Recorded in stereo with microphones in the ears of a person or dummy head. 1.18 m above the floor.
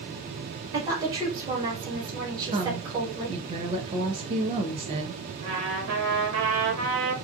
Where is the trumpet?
70° right (ahead or behind), 1.1 m.